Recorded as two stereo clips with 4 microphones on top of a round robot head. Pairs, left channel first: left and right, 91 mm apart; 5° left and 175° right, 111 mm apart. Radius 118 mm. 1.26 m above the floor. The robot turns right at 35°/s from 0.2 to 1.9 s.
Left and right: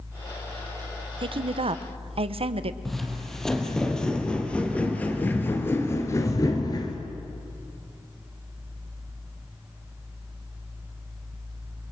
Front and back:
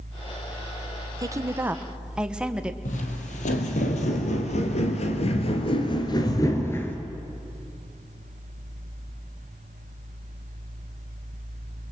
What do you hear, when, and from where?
1.2 s a woman speaking: 120° right, 1.0 m; by 2.8 s 95° right, 1.0 m
2.9 s footsteps: 5° left, 3 m; by 7.0 s 75° left, 1.4 m